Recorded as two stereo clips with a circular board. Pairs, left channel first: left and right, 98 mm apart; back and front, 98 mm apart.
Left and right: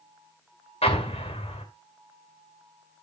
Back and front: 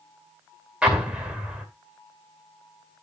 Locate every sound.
0.8 s an explosion: 85° left, 2 m